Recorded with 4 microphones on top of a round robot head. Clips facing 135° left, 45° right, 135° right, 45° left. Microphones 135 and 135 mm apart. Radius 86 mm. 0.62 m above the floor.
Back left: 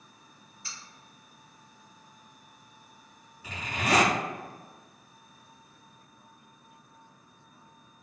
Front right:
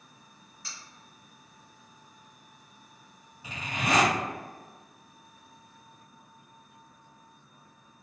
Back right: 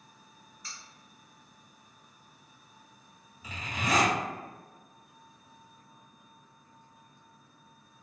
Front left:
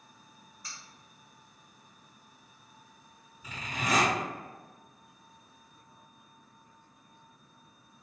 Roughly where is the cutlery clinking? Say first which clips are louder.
Even, even; ahead right.